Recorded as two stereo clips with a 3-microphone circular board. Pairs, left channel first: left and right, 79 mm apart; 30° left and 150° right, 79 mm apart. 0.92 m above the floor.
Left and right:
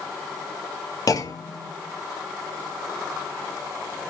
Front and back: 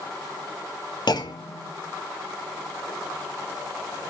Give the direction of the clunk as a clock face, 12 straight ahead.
10 o'clock.